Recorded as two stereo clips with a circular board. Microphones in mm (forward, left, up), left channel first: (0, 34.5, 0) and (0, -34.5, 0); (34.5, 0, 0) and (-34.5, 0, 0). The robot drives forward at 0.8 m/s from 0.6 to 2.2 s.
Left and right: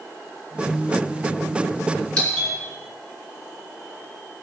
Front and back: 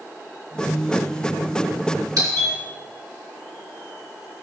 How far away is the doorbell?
About 4 m.